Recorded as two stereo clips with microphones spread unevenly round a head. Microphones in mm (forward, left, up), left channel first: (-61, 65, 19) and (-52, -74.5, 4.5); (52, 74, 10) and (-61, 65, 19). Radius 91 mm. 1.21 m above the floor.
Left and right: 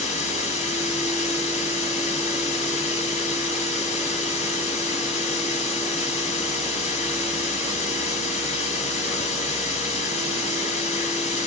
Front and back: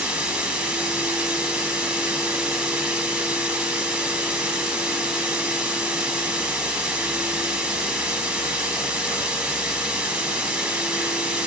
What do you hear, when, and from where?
0.0 s running water: 105° left, 1.4 m